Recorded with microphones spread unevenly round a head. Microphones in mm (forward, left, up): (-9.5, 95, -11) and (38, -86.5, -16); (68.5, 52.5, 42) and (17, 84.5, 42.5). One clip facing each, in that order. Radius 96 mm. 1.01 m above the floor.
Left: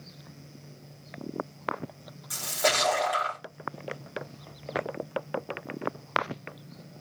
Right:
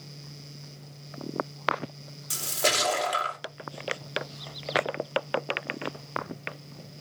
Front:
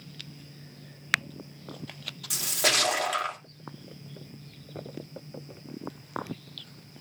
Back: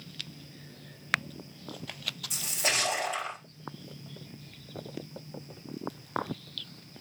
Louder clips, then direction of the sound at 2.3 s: Left 1 dB, front 4 dB; 20° right.